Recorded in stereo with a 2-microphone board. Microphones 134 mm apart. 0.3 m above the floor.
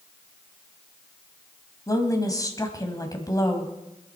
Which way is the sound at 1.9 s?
25° left (ahead or behind).